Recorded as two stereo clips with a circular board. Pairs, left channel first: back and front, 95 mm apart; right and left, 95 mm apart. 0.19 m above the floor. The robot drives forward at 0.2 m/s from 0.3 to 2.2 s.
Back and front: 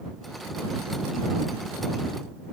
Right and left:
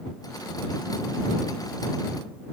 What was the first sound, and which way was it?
Only background noise.